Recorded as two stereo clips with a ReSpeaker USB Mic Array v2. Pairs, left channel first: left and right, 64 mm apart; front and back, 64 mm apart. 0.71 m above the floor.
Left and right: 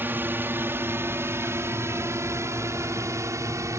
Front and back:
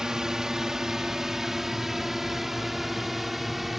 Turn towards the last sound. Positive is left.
turn(degrees=-90)